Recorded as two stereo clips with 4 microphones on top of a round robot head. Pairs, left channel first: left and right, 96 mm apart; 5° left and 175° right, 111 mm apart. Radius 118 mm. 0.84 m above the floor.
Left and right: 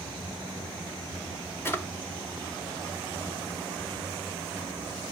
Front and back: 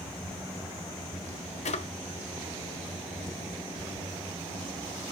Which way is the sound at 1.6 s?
25° left.